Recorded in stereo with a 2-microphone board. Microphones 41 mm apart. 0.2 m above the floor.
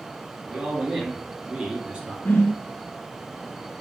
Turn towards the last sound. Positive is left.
turn(degrees=65)  # may be behind; listen again after turning